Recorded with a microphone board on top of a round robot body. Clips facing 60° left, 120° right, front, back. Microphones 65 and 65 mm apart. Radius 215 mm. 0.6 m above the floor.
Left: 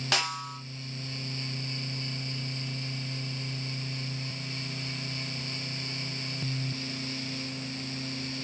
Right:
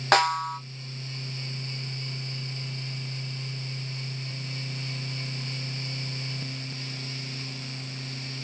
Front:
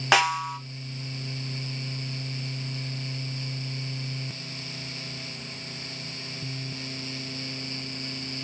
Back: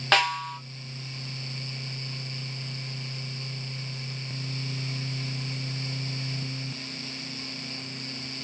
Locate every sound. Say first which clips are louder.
0.1 s a snare drum: right 11 dB, front 2 dB; 80° right, 1.6 m